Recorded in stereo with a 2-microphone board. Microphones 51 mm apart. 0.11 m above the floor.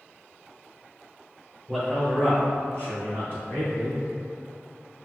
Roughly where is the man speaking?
Centre.